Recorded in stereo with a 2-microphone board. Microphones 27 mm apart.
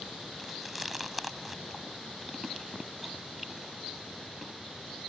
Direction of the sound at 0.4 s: 5° right (ahead or behind).